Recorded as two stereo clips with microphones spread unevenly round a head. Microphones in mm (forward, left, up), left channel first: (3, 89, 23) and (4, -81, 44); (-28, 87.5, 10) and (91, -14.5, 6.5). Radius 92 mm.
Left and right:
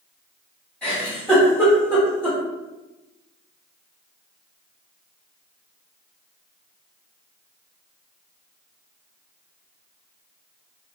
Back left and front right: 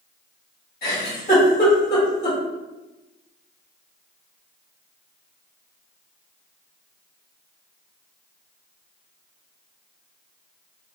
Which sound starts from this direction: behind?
A giggle, at 0.8 s.